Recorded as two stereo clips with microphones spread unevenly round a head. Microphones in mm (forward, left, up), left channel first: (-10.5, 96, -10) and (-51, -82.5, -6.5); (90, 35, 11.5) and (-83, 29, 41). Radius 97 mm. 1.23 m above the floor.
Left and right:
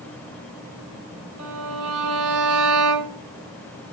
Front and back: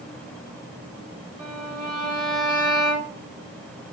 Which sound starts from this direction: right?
A violin, at 1.4 s.